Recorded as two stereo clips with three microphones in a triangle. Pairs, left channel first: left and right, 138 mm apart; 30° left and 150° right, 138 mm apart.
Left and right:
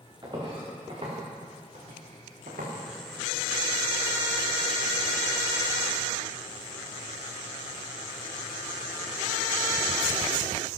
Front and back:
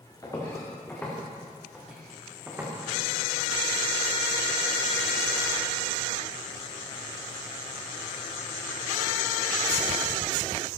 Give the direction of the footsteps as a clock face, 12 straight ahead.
1 o'clock.